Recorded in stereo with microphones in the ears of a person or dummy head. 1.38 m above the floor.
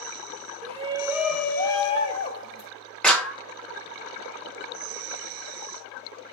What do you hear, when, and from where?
0.6 s a shout: 40° right (ahead or behind), 0.6 m; by 2.7 s 45° left (ahead or behind), 0.9 m
3.0 s a clap: centre (ahead or behind), 0.9 m